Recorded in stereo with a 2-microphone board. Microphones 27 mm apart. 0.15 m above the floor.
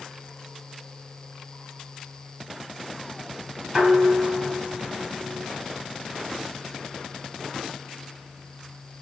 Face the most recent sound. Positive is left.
turn(degrees=-30)  # may be behind; listen again after turning